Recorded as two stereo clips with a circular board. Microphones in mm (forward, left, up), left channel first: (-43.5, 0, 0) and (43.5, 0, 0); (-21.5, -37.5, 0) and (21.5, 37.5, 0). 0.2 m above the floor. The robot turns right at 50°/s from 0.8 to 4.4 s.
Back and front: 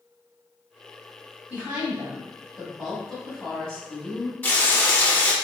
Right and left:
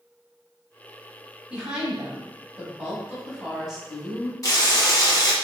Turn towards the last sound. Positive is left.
turn(degrees=-125)